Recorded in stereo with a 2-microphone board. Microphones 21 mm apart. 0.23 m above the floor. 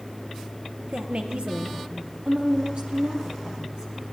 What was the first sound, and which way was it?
A woman speaking, 75° right (ahead or behind).